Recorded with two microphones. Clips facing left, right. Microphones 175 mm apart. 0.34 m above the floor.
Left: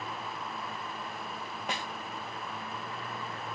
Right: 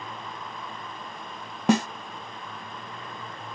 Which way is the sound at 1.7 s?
80° right.